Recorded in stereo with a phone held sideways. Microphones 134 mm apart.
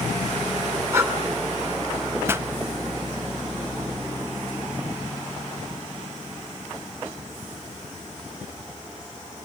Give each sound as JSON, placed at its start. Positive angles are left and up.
{"t": 0.9, "sound": "breathing", "side_deg": -20, "distance_m": 3.0}
{"t": 2.3, "sound": "a pop", "side_deg": -15, "distance_m": 0.5}